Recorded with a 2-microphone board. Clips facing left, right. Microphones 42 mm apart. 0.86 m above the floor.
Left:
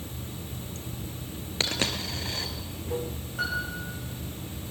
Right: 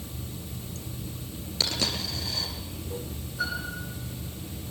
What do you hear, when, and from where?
0.0 s running water: 45° left (ahead or behind), 1.0 m
1.6 s a dropped coin: 40° left (ahead or behind), 2.5 m
3.4 s a piano: 55° left (ahead or behind), 8.5 m